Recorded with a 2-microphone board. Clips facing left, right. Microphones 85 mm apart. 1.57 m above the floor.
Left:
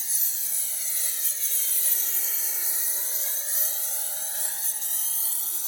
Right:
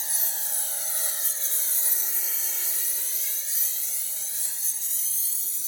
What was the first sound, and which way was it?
A lawn mower, 55° right (ahead or behind).